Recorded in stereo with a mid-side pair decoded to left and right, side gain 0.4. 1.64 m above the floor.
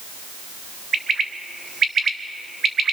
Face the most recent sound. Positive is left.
turn(degrees=-50)